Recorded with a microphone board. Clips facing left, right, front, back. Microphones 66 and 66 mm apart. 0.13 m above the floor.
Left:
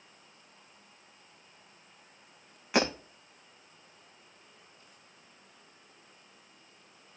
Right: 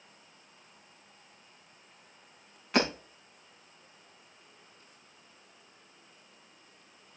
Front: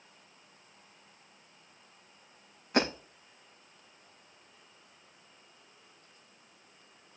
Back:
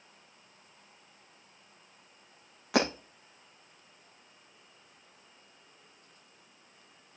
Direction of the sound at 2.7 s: 170° left.